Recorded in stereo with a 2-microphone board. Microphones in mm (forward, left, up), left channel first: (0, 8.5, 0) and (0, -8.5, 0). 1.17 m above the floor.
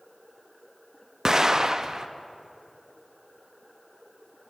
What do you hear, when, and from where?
1.2 s an explosion: 30° right (ahead or behind), 0.6 m